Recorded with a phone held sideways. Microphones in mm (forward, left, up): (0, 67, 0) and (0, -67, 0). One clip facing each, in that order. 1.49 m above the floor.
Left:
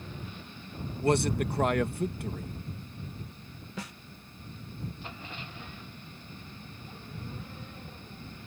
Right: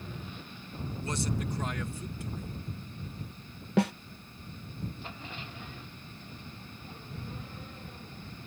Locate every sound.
1.0 s a man speaking: 65° left (ahead or behind)
3.8 s a snare drum: 70° right (ahead or behind)